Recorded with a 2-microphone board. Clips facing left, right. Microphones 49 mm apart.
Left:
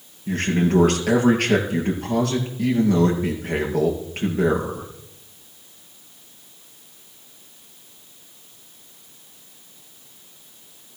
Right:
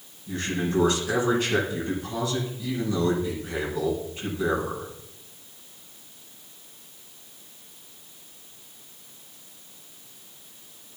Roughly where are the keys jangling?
No keys jangling in this recording.